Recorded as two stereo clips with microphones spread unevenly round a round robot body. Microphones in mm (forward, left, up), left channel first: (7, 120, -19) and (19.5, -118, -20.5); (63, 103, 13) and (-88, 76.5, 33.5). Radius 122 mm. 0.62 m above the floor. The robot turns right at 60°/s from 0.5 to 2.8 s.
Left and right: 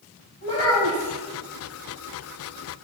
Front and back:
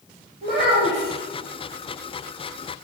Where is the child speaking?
155° left, 2.5 m; by 1.1 s 165° right, 2.5 m.